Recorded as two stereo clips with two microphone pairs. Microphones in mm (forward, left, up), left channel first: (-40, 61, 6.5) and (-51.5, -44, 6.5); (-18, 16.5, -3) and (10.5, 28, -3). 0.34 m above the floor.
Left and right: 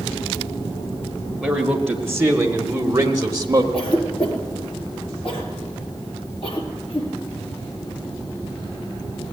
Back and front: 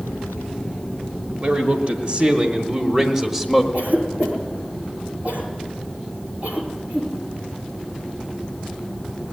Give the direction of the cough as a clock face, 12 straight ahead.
10 o'clock.